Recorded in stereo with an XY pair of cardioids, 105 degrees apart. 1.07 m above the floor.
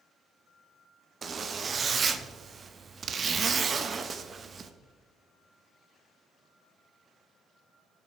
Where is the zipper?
40° right, 0.6 m.